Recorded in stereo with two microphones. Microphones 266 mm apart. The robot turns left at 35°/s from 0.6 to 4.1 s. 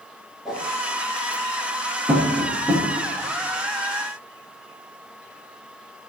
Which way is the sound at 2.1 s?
10° right (ahead or behind).